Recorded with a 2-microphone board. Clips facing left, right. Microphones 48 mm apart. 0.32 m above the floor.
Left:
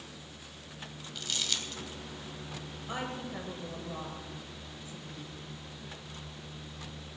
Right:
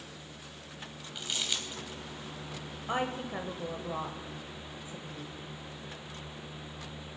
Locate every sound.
1.1 s crumpling: 15° right (ahead or behind), 2 m
2.9 s a woman speaking: 30° right (ahead or behind), 1.0 m